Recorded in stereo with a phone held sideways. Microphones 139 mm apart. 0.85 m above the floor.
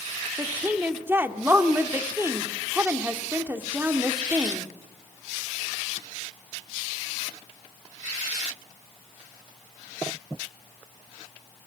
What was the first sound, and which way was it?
A woman speaking, 15° right (ahead or behind).